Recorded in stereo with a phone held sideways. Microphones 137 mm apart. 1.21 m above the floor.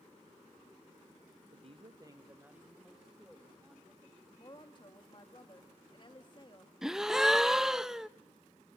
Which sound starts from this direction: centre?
A gasp, at 6.8 s.